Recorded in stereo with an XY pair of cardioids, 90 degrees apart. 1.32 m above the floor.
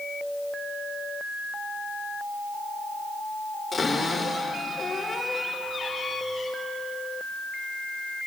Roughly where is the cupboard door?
Ahead left.